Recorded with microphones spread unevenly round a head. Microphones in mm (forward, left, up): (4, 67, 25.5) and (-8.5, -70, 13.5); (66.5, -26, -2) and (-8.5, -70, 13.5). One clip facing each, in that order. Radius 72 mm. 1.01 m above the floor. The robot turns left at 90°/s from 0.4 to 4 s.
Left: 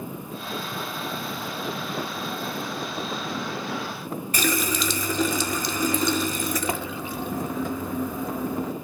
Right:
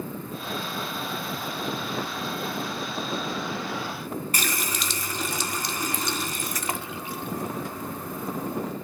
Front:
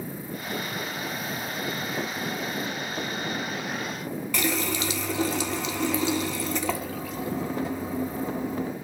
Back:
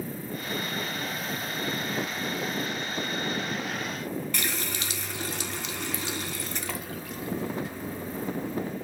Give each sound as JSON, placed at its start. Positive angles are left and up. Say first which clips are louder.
{"t": 4.3, "sound": "a running tap", "louder": "left 6 dB, front 6 dB", "azimuth_deg": 65, "distance_m": 0.6}